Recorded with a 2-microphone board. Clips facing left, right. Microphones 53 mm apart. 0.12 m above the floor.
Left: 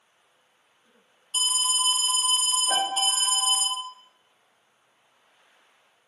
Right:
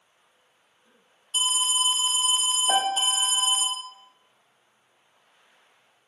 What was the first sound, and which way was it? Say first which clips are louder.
An alarm: right 1 dB; 20° right (ahead or behind).